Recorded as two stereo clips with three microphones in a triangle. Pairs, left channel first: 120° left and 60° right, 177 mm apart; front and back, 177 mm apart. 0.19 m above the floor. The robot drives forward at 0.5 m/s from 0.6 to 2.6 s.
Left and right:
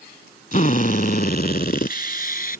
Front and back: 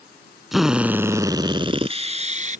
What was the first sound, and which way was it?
A drill, 90° left.